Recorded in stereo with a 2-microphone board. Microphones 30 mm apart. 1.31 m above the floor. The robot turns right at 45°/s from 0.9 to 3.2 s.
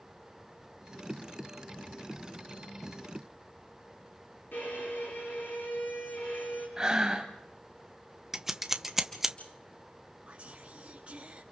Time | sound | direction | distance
4.5 | a violin | 85° left | 9 m
6.8 | breathing | 20° right (ahead or behind) | 1.7 m
8.3 | scissors | 15° right (ahead or behind) | 1.0 m
10.3 | whispering | 40° right (ahead or behind) | 2 m